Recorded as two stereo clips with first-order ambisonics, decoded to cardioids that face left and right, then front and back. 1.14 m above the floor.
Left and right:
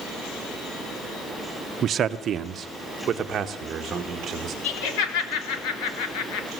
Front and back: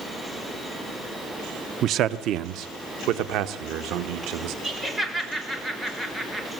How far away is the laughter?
About 3.5 m.